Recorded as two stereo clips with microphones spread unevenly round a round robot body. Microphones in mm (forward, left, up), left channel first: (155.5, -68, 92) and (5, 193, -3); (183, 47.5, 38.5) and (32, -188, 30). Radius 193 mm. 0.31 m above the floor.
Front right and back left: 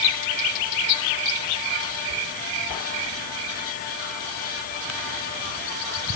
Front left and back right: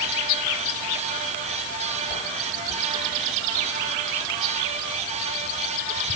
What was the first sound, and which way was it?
Only background noise.